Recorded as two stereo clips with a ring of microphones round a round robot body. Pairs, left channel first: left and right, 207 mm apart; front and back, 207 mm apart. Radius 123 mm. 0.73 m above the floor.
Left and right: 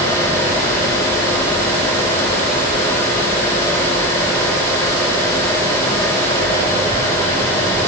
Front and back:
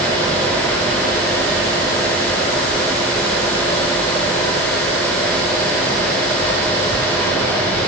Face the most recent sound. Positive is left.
No sound to turn to.